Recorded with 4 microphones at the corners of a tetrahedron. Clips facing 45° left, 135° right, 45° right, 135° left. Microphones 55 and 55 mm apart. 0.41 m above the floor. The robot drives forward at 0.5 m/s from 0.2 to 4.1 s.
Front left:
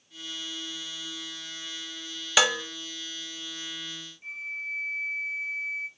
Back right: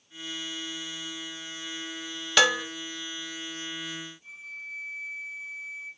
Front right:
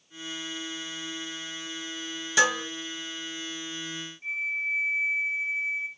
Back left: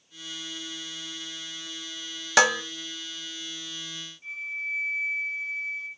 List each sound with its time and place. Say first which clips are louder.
2.4 s dishes clattering: back right 2 dB, back left 3 dB; 130° left, 1.2 m; by 2.6 s 135° left, 1.3 m
4.2 s a flute: front left 6 dB, front right 4 dB; 20° left, 2.5 m